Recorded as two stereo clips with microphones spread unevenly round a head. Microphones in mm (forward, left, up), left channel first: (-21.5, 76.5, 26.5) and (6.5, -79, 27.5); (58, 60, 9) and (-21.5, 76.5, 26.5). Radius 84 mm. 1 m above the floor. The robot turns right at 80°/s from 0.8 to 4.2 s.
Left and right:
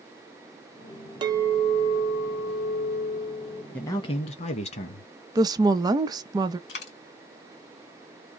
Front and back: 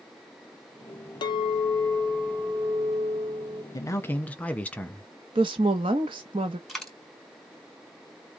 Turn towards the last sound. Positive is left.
turn(degrees=80)